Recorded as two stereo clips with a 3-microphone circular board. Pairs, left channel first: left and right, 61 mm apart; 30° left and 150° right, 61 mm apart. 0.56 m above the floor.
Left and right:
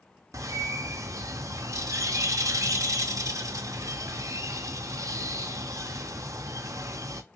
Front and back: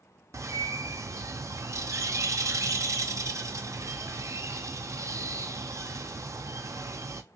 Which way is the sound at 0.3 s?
120° right.